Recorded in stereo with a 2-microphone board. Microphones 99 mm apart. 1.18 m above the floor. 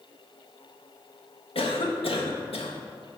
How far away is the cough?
About 1.1 m.